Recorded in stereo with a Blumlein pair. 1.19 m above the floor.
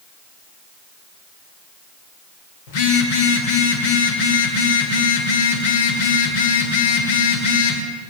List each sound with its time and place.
2.7 s a phone buzzing: 50° left, 2 m